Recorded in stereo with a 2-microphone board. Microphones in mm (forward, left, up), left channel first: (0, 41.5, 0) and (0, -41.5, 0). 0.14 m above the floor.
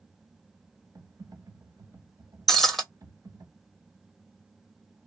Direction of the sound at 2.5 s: Centre (ahead or behind).